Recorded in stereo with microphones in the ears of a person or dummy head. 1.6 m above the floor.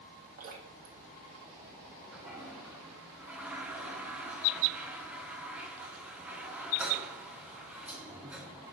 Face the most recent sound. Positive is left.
turn(degrees=-5)  # may be behind; listen again after turning